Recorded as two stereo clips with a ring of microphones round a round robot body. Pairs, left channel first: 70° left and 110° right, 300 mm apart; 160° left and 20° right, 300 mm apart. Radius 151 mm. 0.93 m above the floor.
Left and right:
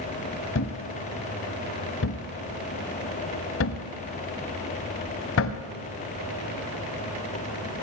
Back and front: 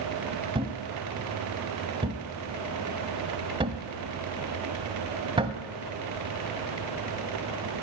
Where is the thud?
45° left, 0.9 m.